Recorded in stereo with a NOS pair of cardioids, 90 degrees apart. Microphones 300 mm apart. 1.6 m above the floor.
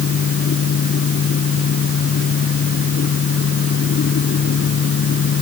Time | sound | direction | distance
0.0 | a fan | 45° left | ?